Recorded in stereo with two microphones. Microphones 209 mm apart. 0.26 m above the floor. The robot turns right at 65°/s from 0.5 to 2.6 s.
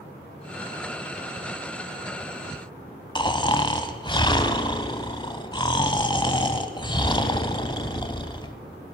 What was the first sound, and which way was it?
Snoring, 20° left (ahead or behind).